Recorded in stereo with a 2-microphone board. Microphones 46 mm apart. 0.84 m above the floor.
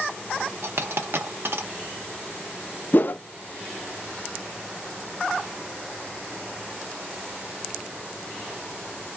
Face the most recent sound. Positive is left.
turn(degrees=45)  # may be behind; listen again after turning